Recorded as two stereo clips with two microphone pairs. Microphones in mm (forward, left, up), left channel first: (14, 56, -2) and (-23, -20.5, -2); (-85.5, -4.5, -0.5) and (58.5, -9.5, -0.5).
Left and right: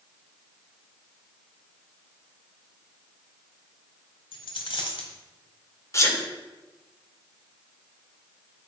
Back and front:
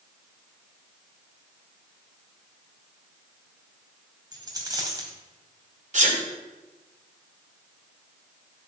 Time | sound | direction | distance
4.3 | a dropped coin | 60° left | 1.6 m
5.9 | a sneeze | 15° left | 1.9 m